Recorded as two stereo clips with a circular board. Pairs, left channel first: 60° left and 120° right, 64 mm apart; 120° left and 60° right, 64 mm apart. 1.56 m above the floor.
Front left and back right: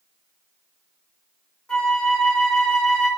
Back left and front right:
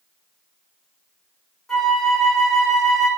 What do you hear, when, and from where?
1.7 s a flute: 40° left, 1.2 m